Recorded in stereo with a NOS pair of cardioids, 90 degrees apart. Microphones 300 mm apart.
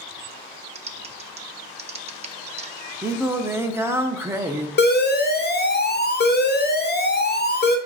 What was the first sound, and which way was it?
Typing on a keyboard, 25° right.